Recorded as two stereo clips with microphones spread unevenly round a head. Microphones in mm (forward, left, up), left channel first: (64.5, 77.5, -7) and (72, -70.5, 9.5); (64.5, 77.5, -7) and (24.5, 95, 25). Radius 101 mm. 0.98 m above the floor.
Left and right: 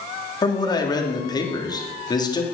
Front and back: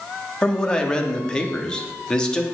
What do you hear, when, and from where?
0.4 s a man speaking: 35° left, 2.5 m